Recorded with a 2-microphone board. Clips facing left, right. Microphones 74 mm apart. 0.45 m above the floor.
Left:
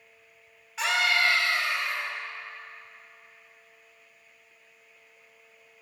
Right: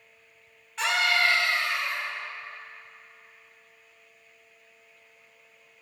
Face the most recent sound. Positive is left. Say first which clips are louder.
# even
turn(degrees=0)  # may be behind; listen again after turning